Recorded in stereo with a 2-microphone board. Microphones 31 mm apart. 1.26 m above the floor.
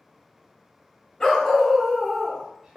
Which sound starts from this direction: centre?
A dog barking, at 1.2 s.